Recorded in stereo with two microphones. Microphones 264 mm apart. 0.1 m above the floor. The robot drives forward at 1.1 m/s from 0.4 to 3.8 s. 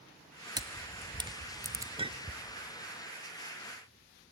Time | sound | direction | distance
0.6 | a camera shutter | 15° right (ahead or behind) | 1.0 m
2.0 | a clink | 20° right (ahead or behind) | 0.7 m